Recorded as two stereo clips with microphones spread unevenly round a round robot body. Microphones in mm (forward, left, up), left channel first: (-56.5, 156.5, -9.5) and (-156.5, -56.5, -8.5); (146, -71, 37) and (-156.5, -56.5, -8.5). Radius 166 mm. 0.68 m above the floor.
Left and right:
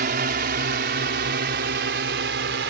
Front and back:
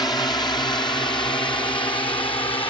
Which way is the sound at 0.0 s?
85° right.